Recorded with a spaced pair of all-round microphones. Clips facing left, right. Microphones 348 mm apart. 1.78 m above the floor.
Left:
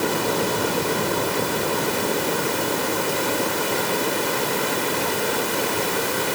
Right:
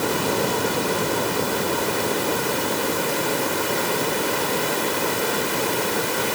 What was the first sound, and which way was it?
Only background noise.